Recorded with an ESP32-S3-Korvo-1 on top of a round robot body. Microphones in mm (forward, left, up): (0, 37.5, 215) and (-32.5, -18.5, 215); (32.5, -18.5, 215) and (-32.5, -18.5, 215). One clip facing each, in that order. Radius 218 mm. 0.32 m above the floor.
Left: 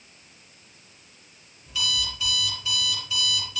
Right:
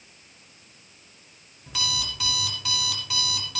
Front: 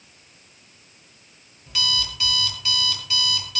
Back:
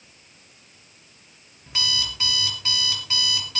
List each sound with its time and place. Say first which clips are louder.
1.7 s an alarm clock: left 2 dB, front 1 dB; 125° right, 4.5 m